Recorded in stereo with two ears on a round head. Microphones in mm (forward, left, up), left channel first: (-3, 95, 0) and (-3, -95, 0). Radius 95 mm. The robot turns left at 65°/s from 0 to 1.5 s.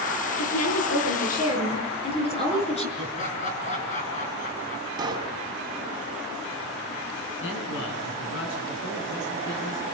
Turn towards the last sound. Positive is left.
turn(degrees=60)  # may be behind; listen again after turning